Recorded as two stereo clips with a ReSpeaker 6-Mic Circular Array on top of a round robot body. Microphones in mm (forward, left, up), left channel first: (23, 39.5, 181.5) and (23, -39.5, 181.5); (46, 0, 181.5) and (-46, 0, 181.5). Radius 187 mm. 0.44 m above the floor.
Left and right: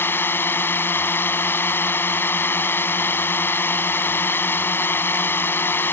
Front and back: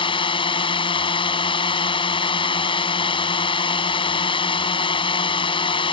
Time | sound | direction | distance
0.0 | a drone | 25° left | ?